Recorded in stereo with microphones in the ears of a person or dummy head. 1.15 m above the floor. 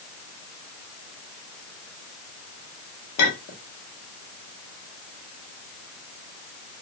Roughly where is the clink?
Left.